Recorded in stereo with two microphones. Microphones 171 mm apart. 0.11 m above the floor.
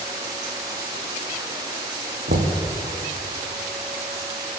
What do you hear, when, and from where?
2.3 s knocking: 75° right (ahead or behind), 4.5 m